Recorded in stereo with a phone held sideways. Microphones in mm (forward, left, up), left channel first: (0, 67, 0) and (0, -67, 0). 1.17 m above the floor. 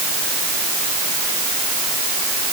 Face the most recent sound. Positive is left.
No sound to turn to.